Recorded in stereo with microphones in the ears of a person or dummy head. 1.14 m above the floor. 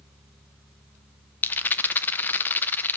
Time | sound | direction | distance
1.4 | a rattle | 10° left (ahead or behind) | 0.6 m